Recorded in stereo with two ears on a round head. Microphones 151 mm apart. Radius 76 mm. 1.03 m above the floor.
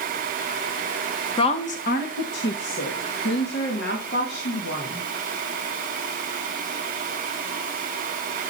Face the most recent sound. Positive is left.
turn(degrees=60)  # may be behind; listen again after turning